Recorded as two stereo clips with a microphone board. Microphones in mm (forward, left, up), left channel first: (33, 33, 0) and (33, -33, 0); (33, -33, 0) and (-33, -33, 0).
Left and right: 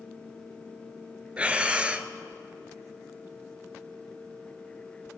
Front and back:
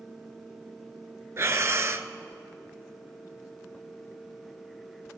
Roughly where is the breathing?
Behind right.